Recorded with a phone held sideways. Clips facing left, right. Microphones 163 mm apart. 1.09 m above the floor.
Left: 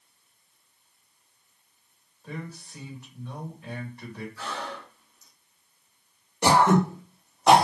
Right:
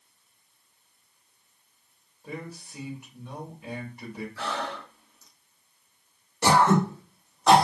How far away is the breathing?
About 0.8 m.